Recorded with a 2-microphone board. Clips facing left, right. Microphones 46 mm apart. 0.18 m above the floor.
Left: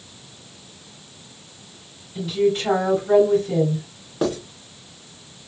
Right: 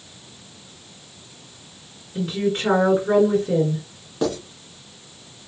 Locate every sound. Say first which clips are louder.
2.1 s a woman speaking: left 3 dB; 40° right (ahead or behind), 3 m
4.2 s writing: left 1 dB; 10° left (ahead or behind), 1.9 m